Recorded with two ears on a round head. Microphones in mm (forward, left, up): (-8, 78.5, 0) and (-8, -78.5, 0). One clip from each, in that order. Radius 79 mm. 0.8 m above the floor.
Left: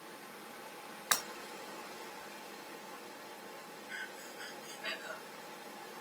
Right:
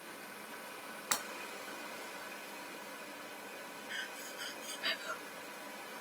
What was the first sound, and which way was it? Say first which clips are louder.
Running water: right 1 dB; 10° right (ahead or behind).